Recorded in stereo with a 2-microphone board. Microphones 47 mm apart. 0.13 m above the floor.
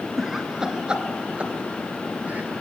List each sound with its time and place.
0.2 s laughter: 5° right (ahead or behind), 1.9 m; by 2.5 s 35° right (ahead or behind), 3 m